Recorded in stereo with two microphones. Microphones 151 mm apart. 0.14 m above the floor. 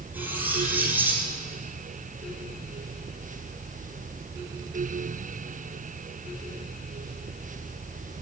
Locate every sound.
0.1 s cutlery clinking: 10° right (ahead or behind), 2.5 m